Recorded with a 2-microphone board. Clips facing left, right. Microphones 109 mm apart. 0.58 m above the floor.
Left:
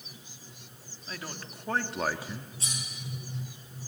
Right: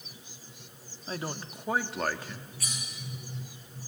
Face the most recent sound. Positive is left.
turn(degrees=25)  # may be behind; listen again after turning